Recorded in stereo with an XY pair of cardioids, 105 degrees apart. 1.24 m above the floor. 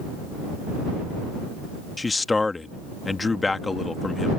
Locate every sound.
2.0 s a man speaking: 20° left